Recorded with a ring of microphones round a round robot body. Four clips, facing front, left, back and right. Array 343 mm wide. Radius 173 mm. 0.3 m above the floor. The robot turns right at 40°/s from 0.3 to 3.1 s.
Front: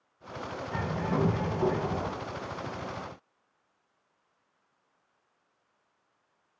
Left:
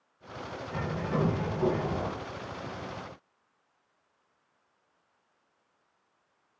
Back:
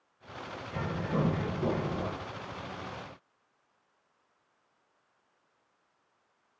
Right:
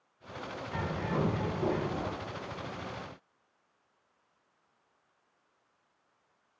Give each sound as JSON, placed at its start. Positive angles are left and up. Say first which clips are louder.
{"t": 0.7, "sound": "a bird", "louder": "left 2 dB, front 2 dB", "azimuth_deg": -25, "distance_m": 2.0}